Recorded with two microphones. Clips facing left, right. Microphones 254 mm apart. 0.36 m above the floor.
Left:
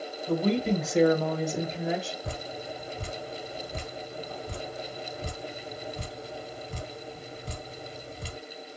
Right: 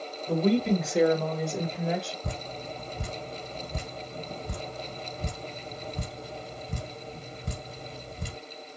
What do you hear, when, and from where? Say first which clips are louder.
0.3 s a woman speaking: right 2 dB; centre (ahead or behind), 1.0 m; by 2.1 s 5° left (ahead or behind), 1.1 m
2.2 s dripping: even; 50° right (ahead or behind), 1.7 m